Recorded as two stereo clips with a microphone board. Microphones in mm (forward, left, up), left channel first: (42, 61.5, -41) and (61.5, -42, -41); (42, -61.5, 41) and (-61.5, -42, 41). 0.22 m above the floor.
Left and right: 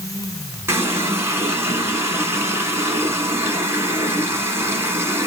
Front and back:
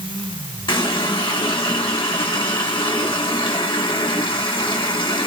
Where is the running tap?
25° right, 1.2 m.